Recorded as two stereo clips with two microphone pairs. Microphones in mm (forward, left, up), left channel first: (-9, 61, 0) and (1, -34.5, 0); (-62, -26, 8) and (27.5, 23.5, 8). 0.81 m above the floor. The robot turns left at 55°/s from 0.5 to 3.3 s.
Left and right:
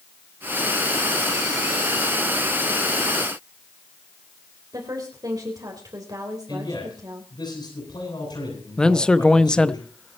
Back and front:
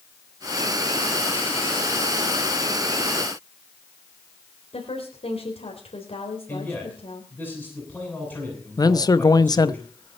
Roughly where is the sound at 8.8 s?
Behind.